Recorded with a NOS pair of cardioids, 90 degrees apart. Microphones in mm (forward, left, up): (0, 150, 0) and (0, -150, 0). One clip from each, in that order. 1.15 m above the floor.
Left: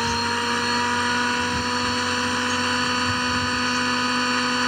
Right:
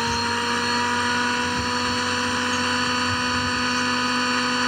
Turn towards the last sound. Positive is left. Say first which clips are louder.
# even
turn(degrees=0)